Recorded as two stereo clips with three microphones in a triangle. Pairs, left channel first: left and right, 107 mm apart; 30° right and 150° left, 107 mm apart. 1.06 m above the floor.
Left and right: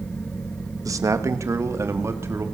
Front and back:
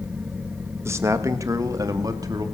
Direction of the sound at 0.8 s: 145° right.